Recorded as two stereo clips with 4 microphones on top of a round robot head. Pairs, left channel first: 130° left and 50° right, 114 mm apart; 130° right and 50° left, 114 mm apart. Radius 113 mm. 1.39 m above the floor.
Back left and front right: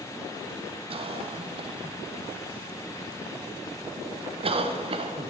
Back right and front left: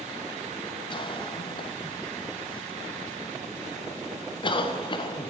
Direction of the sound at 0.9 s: 85° right.